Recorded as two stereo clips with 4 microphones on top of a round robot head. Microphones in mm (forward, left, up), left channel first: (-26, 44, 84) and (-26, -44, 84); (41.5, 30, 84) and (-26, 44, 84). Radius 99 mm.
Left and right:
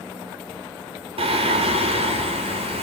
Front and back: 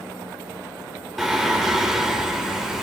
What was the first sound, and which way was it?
Singing, 105° right.